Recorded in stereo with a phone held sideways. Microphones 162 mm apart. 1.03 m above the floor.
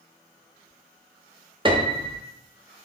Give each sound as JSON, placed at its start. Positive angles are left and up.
{"t": 1.6, "sound": "a piano", "side_deg": -30, "distance_m": 0.5}